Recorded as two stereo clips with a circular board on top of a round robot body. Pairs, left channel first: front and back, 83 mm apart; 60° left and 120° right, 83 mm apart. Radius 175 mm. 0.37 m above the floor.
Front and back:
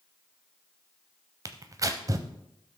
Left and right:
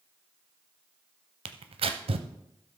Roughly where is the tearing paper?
Behind right.